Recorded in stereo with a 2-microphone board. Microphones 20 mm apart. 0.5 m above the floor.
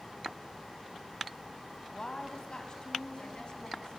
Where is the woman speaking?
35° left (ahead or behind), 3 m; by 4.0 s 50° left (ahead or behind), 4 m.